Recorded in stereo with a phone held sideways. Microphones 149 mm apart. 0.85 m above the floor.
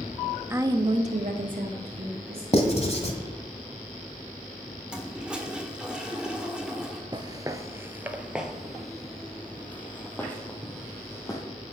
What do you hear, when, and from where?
0.5 s a woman speaking: 15° right (ahead or behind), 1.0 m; by 2.4 s 75° right (ahead or behind), 2 m
2.5 s writing: 45° left (ahead or behind), 1.5 m
4.9 s a toilet flushing: 5° right (ahead or behind), 1.6 m
7.1 s footsteps: 30° right (ahead or behind), 0.9 m; by 11.4 s 20° left (ahead or behind), 2.5 m